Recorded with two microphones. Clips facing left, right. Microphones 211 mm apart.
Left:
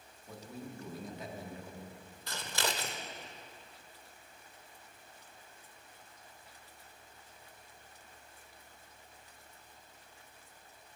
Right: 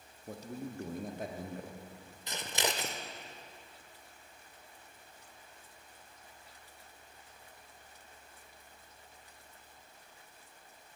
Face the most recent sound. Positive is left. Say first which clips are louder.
# right 2 dB
turn(degrees=-20)  # may be behind; listen again after turning